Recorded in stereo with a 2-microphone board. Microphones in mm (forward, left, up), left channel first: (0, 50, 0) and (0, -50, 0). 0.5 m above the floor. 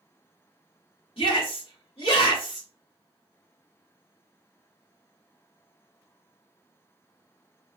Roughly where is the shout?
Left.